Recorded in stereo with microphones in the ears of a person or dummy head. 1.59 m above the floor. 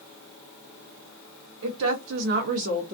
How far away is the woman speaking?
About 0.9 m.